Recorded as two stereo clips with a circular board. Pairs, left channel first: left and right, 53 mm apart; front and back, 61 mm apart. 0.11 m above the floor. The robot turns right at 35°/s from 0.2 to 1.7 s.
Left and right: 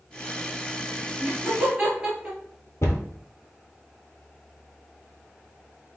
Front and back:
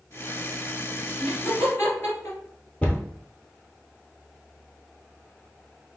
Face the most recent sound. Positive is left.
turn(degrees=70)